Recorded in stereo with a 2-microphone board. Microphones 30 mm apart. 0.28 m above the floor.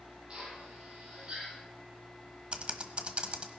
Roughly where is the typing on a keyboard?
Right.